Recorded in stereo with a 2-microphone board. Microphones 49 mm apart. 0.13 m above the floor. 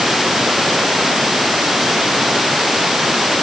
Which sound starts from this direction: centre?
Running water, at 0.0 s.